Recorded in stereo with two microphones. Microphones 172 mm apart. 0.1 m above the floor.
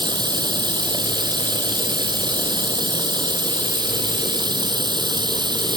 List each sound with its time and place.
0.0 s running water: 25° right (ahead or behind)